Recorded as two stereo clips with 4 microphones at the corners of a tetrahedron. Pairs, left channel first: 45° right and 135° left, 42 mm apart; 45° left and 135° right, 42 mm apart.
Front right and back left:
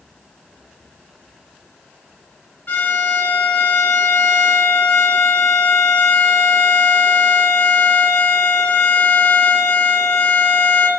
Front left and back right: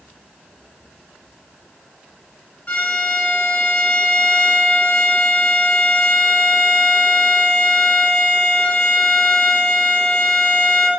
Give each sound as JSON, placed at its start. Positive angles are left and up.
{"t": 2.7, "sound": "a violin", "azimuth_deg": -5, "distance_m": 1.2}